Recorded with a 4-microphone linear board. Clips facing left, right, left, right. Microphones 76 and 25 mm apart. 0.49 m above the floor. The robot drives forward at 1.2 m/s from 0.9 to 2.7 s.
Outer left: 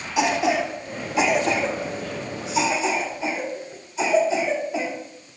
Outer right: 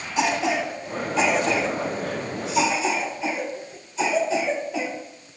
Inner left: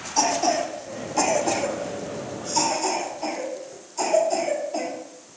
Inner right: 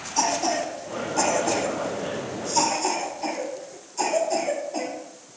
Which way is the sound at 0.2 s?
10° left (ahead or behind).